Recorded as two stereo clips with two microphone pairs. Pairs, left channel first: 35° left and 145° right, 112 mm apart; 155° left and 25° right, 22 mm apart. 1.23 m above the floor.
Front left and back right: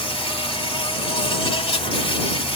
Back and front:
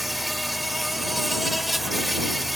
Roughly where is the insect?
Ahead left.